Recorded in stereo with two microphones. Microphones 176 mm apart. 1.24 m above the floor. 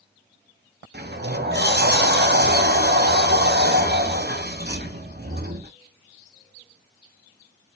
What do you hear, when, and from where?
0.9 s a sliding door: 60° right (ahead or behind), 0.9 m